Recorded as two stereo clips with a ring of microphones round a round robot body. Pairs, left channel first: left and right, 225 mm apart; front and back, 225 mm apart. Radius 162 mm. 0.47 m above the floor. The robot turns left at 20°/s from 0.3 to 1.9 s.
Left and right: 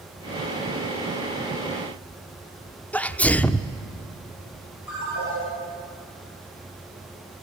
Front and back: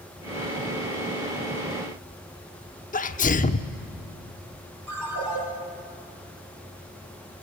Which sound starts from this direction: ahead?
A sneeze, at 2.9 s.